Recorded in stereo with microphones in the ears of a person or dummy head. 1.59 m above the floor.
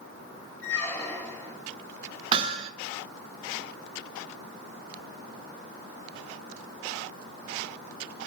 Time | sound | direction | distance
0.6 | a squeak | 10° left (ahead or behind) | 1.5 m
2.3 | hammering | 30° right (ahead or behind) | 1.3 m